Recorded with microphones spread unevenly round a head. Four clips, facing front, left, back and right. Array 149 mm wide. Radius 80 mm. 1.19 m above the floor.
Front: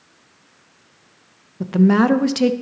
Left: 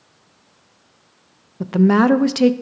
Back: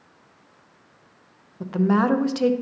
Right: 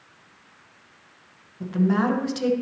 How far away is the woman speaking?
About 0.6 m.